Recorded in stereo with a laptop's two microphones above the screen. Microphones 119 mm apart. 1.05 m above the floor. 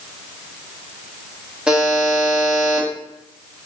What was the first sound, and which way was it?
A buzzer, 5° right (ahead or behind).